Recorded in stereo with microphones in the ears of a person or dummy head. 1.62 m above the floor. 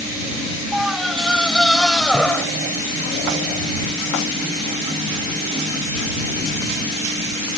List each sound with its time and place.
0.7 s a scream: centre (ahead or behind); by 2.5 s 10° left (ahead or behind)